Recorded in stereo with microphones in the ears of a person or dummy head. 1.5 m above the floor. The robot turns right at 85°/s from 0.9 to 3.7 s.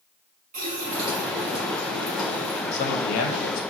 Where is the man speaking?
40° left, 0.9 m; by 3.6 s 115° left, 0.9 m.